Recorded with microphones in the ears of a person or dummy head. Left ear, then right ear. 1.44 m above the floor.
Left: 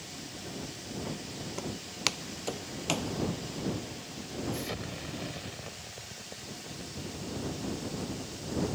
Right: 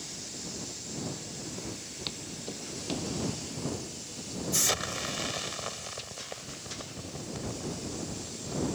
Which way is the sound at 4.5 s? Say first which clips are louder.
Right 9 dB; 50° right (ahead or behind).